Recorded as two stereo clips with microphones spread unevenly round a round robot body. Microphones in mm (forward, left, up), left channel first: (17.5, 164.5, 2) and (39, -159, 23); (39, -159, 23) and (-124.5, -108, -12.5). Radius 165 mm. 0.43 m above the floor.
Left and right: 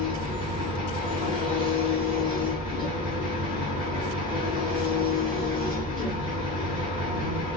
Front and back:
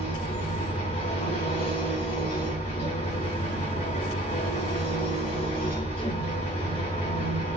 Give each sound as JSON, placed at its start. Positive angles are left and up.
{"t": 0.0, "sound": "an engine running", "azimuth_deg": 35, "distance_m": 2.5}